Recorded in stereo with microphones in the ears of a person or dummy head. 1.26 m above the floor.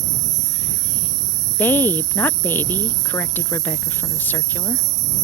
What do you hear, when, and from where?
0.0 s an insect: 50° right (ahead or behind)
1.6 s a woman speaking: 10° left (ahead or behind)